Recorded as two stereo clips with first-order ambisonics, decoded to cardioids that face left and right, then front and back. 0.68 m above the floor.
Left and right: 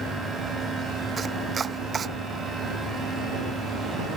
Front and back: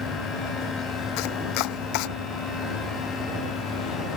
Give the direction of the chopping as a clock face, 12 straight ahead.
1 o'clock.